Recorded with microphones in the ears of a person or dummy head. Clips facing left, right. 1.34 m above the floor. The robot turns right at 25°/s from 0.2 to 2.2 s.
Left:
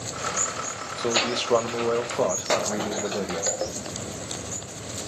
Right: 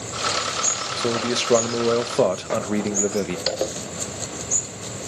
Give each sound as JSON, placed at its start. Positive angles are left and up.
{"t": 1.0, "sound": "a man speaking", "azimuth_deg": -160, "distance_m": 0.9}
{"t": 3.5, "sound": "a zipper", "side_deg": -40, "distance_m": 0.7}